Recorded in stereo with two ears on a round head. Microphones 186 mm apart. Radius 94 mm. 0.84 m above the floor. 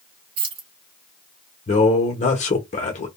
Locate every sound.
0.4 s keys jangling: 25° right (ahead or behind), 1.3 m
1.7 s a man speaking: 35° left (ahead or behind), 0.8 m